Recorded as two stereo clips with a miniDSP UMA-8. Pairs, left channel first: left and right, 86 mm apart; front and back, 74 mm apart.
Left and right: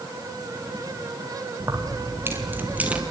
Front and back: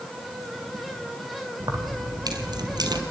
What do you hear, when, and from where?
1.6 s keys jangling: 145° right, 3.5 m; by 3.0 s 165° right, 2.5 m